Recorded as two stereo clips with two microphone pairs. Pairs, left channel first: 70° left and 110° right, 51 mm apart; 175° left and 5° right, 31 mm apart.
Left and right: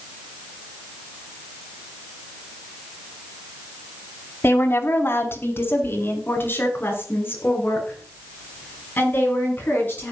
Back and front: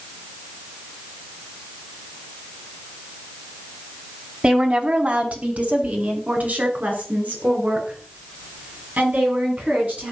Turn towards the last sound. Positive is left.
turn(degrees=20)